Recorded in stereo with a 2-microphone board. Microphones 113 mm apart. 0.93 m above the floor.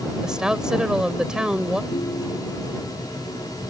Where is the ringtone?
90° left.